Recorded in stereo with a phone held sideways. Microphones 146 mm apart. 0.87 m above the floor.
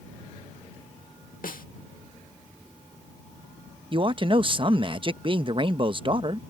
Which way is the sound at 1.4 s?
80° left.